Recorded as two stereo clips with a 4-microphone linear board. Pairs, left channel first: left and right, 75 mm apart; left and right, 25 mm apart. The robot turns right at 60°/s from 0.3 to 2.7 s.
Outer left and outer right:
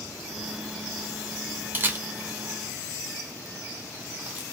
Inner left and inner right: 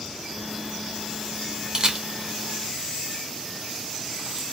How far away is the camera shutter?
About 0.6 m.